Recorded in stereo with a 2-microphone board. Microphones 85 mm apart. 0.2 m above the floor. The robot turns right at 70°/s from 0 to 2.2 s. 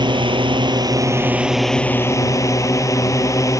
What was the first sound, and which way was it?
A drone, 115° right.